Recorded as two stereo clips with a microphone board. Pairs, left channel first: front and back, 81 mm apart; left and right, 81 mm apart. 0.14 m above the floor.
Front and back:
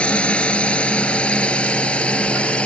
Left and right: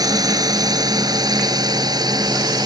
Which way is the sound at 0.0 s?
75° right.